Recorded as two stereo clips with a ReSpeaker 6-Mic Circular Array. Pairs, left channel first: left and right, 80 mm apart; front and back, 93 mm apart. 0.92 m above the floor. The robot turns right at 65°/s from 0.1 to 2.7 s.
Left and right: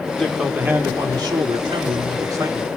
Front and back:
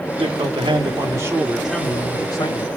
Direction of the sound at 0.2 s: 170° left.